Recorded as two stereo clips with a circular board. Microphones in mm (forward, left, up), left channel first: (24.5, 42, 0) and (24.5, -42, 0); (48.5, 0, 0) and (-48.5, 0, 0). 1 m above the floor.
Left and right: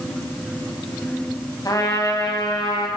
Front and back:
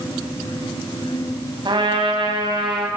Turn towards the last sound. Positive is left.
turn(degrees=140)